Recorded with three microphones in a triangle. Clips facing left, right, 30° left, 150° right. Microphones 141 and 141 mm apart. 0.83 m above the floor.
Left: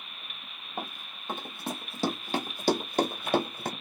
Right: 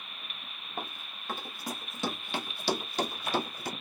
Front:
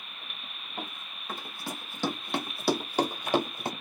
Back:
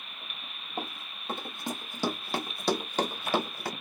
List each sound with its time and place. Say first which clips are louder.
0.8 s running footsteps: left 2 dB, back 3 dB; 170° left, 1.3 m; by 3.7 s 95° left, 1.5 m